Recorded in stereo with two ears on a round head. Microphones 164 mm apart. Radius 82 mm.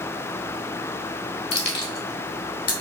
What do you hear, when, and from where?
1.5 s keys jangling: 65° left (ahead or behind), 2 m; by 2.7 s 50° left (ahead or behind), 2.5 m